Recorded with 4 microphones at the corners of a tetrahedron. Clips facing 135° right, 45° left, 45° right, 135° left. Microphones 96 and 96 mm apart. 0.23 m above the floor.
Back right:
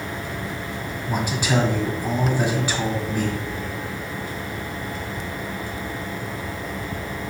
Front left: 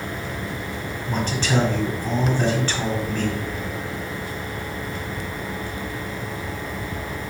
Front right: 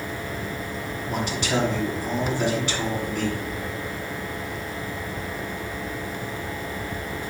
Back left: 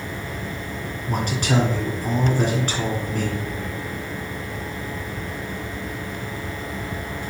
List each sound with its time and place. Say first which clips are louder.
1.1 s a man speaking: even, back left 3 dB; 150° left, 1.3 m